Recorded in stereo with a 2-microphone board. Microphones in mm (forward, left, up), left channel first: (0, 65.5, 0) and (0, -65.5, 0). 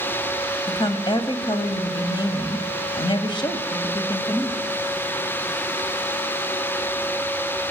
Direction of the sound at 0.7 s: 35° left (ahead or behind).